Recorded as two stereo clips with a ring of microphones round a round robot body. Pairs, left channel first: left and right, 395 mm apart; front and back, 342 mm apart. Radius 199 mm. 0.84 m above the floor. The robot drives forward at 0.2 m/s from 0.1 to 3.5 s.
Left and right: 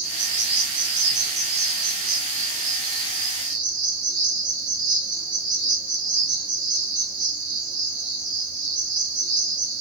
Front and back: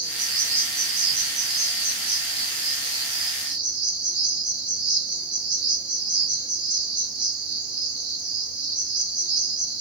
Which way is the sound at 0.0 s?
130° right.